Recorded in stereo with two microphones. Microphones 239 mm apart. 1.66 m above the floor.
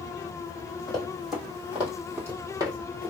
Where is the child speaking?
No child speaking in this recording.